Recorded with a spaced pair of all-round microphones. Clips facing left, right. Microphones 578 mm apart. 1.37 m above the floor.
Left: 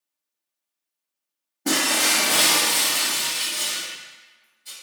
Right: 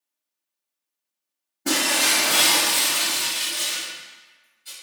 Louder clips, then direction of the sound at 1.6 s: Left 1 dB; 5° left (ahead or behind).